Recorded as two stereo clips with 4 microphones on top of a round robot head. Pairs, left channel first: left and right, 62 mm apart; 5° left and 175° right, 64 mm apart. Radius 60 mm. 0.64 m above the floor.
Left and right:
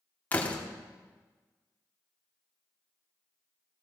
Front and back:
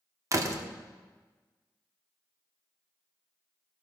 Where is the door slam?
160° left, 1.2 m.